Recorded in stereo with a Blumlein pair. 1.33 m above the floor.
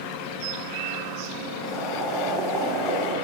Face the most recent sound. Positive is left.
turn(degrees=-20)